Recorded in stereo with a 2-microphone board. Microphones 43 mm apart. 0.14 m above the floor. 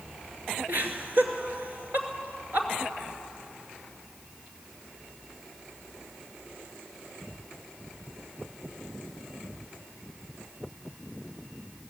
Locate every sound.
0.7 s laughter: 50° right (ahead or behind), 2.5 m